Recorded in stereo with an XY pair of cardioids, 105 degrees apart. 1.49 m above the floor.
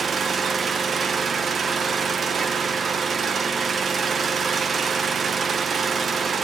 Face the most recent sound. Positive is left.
turn(degrees=-40)